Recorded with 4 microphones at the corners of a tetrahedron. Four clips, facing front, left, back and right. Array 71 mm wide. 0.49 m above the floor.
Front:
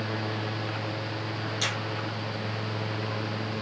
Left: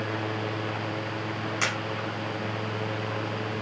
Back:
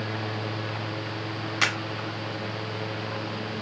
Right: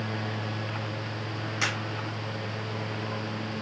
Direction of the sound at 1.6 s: 175° left.